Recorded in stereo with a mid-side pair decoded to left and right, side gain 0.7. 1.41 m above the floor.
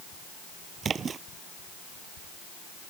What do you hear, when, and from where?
0.8 s a splash: 30° right